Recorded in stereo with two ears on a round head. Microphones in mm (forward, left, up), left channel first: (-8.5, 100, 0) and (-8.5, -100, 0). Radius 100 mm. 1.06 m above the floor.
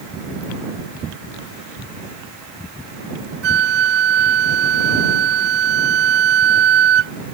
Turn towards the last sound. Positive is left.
turn(degrees=-50)  # may be behind; listen again after turning